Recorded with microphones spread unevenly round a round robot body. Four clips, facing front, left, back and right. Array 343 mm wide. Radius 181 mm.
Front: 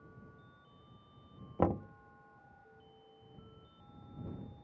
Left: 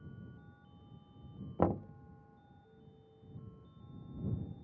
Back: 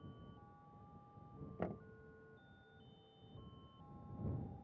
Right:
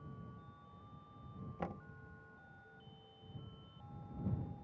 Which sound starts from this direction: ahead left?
Knocking, at 1.6 s.